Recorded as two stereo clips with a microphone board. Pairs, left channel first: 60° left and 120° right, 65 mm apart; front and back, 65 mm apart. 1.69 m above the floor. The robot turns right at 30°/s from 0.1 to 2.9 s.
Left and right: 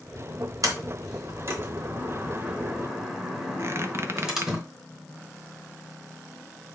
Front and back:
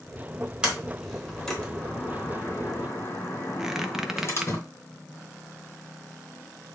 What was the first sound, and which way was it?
A sliding door, 110° right.